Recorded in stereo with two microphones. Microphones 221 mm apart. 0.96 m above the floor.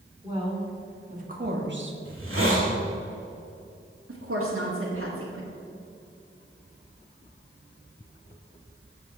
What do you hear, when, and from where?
0.2 s a woman speaking: 20° right (ahead or behind), 3 m; by 1.9 s 65° right (ahead or behind), 1.2 m
2.0 s a hiss: 65° right (ahead or behind), 2.5 m
4.1 s a woman speaking: 75° right (ahead or behind), 1.8 m